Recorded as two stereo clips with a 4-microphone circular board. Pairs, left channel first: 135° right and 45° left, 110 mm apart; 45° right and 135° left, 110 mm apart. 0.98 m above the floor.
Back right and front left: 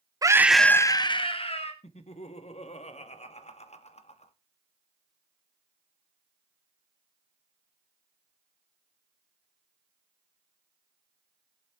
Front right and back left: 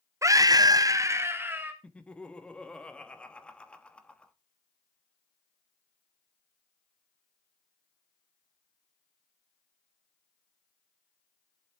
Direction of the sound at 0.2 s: 85° left.